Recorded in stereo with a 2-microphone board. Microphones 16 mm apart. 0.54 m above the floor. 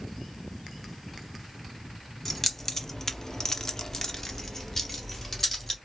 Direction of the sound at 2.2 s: 15° left (ahead or behind).